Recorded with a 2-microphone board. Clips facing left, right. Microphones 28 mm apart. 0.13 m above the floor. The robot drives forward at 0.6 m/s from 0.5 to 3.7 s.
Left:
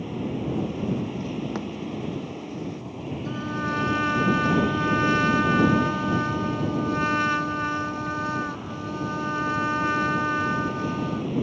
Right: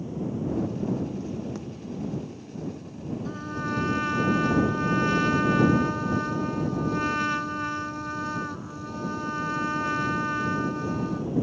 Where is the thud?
35° left (ahead or behind).